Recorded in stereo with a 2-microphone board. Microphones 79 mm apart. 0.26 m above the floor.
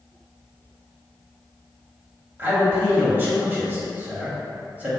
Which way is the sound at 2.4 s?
25° right (ahead or behind).